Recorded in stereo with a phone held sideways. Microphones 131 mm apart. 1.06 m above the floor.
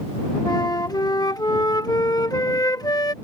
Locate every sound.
0.5 s a flute: 30° left (ahead or behind)